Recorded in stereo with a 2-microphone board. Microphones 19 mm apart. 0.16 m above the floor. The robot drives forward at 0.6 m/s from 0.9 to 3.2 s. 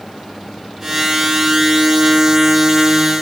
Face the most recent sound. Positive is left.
No sound to turn to.